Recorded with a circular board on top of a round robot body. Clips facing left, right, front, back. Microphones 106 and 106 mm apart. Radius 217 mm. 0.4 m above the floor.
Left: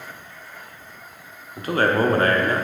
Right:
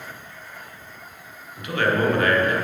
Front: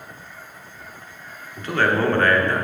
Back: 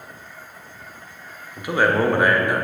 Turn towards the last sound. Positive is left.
turn(degrees=110)